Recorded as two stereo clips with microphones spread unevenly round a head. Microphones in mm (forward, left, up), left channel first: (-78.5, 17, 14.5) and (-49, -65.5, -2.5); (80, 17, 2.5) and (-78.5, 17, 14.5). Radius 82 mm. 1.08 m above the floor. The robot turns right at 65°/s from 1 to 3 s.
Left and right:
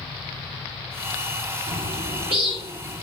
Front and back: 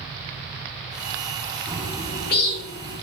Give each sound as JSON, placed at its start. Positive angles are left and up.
{"t": 1.7, "sound": "a bird", "azimuth_deg": -75, "distance_m": 3.5}